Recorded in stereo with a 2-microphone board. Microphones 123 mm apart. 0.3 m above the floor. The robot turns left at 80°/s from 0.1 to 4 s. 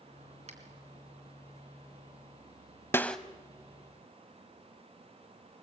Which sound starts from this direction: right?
A finger snap, at 0.5 s.